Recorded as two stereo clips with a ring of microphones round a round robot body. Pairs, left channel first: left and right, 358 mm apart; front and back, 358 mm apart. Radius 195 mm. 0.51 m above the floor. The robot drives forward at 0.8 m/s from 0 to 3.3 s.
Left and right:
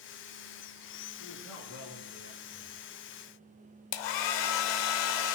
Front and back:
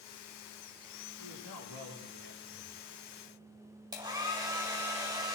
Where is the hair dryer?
100° left, 0.8 m.